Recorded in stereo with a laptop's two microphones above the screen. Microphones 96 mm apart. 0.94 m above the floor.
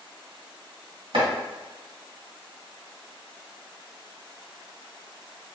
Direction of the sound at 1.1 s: 70° right (ahead or behind).